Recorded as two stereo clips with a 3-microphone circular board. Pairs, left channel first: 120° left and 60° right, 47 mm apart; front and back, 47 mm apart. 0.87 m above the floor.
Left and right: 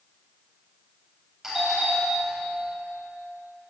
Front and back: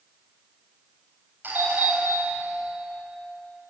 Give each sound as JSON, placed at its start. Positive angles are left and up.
{"t": 1.4, "sound": "a doorbell", "azimuth_deg": -145, "distance_m": 7.5}